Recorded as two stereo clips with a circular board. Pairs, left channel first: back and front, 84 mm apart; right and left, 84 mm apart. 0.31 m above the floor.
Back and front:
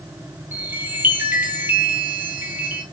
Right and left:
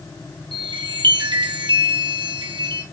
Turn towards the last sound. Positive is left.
turn(degrees=65)